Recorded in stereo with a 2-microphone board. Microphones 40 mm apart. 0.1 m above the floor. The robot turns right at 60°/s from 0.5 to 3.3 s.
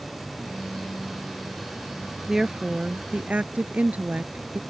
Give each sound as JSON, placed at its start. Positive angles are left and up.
{"t": 2.3, "sound": "a woman speaking", "azimuth_deg": -170}